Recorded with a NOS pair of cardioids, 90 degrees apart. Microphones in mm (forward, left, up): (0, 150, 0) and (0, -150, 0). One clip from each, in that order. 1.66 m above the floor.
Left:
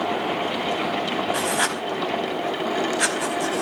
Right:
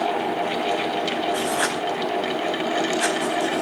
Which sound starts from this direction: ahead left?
Writing, at 1.3 s.